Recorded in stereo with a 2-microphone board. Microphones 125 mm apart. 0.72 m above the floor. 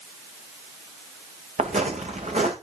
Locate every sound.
1.6 s footsteps: 70° right (ahead or behind), 2.5 m